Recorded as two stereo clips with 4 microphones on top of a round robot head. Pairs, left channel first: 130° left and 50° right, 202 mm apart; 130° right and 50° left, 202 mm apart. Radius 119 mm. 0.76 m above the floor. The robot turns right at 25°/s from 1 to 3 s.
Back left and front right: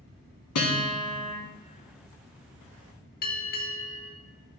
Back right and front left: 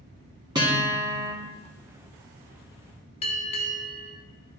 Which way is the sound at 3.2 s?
175° left.